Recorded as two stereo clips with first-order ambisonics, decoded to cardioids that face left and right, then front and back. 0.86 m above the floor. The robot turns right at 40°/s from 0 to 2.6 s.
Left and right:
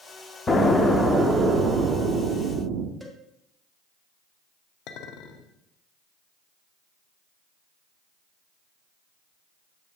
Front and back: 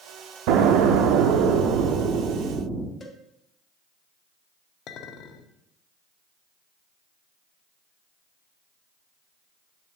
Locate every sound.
0.5 s an explosion: 165° left, 0.6 m; by 2.9 s 110° right, 0.6 m
3.0 s a cowbell: 10° right, 0.6 m
4.9 s a clink: 50° left, 0.6 m